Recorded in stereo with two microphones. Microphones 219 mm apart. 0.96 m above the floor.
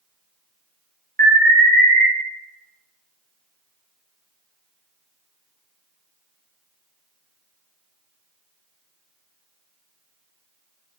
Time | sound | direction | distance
1.2 | an alarm | 45° right (ahead or behind) | 3 m